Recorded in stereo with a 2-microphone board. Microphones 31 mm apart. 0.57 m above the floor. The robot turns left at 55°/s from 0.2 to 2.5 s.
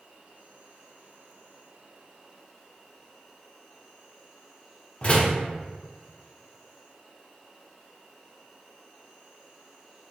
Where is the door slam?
35° left (ahead or behind), 0.6 m.